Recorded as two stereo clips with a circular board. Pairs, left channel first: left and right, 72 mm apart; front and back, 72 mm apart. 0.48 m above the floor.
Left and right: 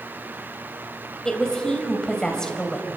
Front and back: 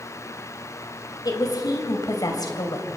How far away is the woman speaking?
About 3 m.